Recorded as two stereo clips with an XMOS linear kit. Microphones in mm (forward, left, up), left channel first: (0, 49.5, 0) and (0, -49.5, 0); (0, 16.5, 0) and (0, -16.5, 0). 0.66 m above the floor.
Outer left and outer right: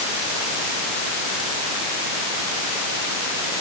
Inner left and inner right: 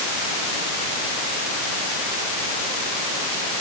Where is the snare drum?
I don't hear a snare drum.